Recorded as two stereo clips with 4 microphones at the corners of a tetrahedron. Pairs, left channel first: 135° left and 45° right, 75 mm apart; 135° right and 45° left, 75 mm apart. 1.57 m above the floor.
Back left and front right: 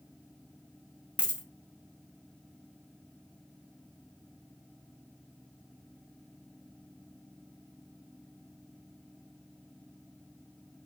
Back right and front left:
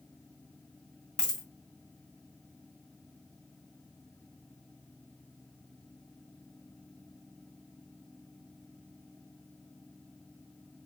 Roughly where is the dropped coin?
Right.